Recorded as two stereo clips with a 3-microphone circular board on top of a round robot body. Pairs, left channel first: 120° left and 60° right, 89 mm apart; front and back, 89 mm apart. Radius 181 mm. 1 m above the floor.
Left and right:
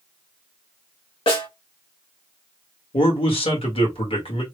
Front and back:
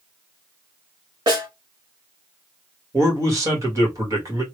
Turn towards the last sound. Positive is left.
turn(degrees=125)